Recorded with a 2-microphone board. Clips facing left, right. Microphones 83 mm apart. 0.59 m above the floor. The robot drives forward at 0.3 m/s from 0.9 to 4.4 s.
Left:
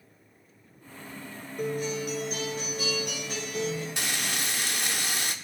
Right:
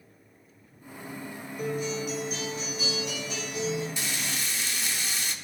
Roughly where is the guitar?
Left.